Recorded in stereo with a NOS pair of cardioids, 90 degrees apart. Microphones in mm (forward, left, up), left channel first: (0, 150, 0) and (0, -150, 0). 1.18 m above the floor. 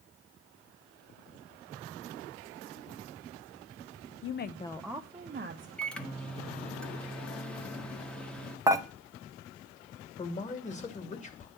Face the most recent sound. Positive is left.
turn(degrees=25)